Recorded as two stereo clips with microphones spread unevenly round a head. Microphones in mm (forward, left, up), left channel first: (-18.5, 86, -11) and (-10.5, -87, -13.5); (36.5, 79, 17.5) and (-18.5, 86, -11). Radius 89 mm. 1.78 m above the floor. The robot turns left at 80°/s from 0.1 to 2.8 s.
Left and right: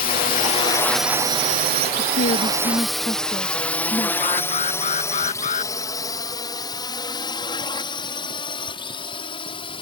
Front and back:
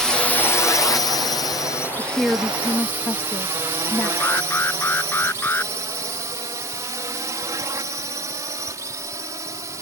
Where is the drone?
100° left; by 9.8 s 155° left.